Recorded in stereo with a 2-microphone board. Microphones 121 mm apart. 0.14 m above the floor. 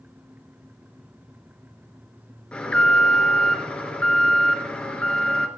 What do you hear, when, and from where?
2.5 s an alarm: 10° left (ahead or behind), 3 m